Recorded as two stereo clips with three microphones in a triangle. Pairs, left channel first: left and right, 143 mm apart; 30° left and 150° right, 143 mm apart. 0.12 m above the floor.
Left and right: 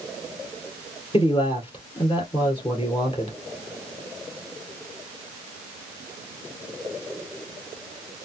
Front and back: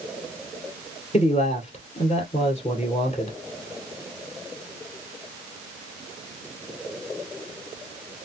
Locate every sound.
1.1 s a man speaking: 50° left, 2 m